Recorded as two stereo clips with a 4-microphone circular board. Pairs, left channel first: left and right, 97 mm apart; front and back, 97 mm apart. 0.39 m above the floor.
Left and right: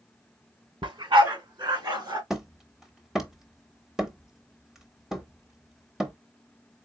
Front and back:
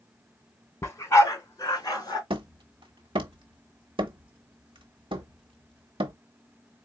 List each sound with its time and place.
0.8 s a dog barking: 60° right, 1.2 m; by 2.2 s 50° right, 2 m
2.3 s hammering: 175° right, 0.9 m